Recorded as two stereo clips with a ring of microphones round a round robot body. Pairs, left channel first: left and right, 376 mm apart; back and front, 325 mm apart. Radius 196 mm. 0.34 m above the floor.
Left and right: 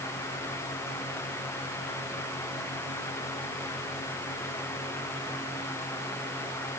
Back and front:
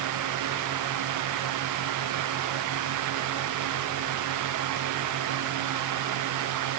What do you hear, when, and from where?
Only background noise.